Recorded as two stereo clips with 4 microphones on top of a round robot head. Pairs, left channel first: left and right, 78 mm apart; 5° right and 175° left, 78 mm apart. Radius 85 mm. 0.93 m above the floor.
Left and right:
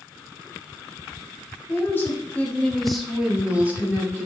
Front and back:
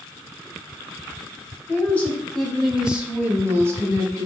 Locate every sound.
1.7 s a woman speaking: 50° left, 0.8 m; by 4.3 s 145° right, 1.0 m